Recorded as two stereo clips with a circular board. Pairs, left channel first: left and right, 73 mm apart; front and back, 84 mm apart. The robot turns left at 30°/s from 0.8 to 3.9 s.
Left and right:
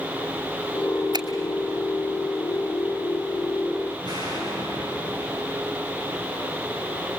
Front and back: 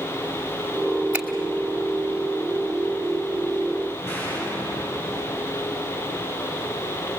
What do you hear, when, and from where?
1.1 s a finger snap: 105° right, 2.5 m; by 1.3 s 110° right, 2.5 m
4.0 s an explosion: 65° right, 10 m